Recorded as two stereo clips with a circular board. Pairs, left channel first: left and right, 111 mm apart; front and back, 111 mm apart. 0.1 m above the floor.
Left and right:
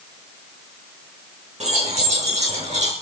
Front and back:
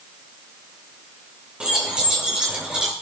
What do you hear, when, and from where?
1.6 s keys jangling: 100° right, 4.5 m; by 2.9 s 95° right, 3.5 m